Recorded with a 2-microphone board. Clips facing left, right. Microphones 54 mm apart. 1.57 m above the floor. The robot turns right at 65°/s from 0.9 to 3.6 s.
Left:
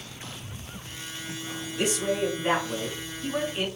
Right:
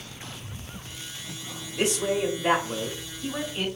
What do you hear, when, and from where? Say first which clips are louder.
1.8 s a man speaking: right 1 dB; 110° right, 1.5 m; by 3.7 s 10° left, 1.5 m